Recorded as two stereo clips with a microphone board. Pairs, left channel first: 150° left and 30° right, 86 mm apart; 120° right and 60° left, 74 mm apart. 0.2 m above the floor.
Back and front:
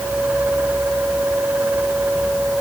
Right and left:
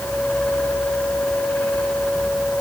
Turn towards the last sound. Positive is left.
No sound to turn to.